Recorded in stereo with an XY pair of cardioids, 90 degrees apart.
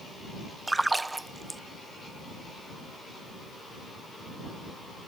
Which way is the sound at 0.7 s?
20° right.